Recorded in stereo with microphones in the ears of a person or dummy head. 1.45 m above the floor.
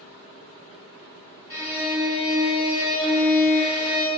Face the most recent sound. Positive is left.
turn(degrees=-10)  # may be behind; listen again after turning